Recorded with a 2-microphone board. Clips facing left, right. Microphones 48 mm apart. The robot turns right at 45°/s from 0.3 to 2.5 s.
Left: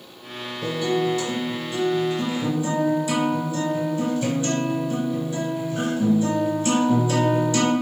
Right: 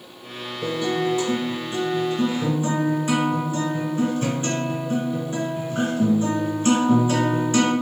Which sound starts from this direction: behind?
A guitar, at 0.6 s.